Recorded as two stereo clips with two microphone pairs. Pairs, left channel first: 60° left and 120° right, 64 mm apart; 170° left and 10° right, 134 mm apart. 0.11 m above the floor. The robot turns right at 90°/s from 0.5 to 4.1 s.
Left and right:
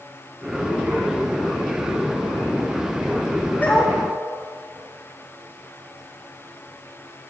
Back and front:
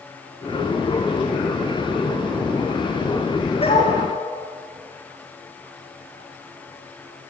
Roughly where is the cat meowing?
No cat meowing in this recording.